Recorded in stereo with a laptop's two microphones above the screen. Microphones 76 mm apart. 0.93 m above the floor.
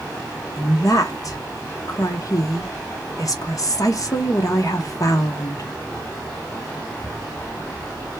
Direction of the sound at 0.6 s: 50° left (ahead or behind).